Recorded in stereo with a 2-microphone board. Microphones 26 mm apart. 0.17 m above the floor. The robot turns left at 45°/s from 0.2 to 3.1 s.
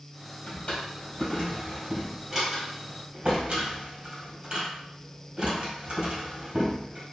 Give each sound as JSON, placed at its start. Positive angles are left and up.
{"t": 0.5, "sound": "a drawer", "side_deg": 65, "distance_m": 1.7}